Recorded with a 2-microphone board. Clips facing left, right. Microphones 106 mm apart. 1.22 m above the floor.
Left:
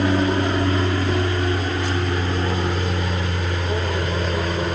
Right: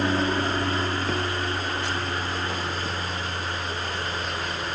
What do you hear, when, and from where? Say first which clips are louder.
0.0 s an aircraft: left 5 dB; 15° left (ahead or behind); by 4.8 s 40° left (ahead or behind)